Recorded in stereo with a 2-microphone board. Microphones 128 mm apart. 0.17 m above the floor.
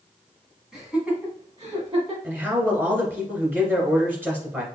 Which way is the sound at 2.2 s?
15° right (ahead or behind).